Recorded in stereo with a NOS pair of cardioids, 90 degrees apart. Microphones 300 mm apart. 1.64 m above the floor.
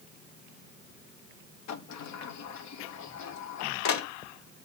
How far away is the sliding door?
About 0.8 m.